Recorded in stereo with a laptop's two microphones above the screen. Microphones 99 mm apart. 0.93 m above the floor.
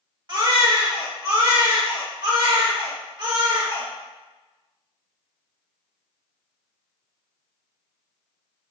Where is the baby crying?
45° right (ahead or behind), 1.2 m.